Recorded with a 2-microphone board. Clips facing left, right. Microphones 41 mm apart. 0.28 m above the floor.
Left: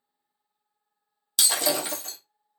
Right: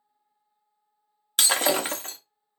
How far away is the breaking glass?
About 0.7 m.